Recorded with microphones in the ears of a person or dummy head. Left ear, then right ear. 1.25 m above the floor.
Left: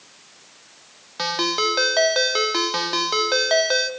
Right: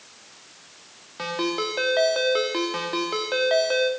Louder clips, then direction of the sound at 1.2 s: Left 5 dB; 30° left (ahead or behind).